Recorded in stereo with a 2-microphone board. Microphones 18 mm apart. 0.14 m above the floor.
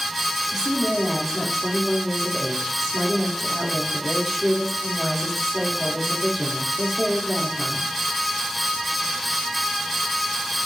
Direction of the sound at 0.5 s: 5° right (ahead or behind).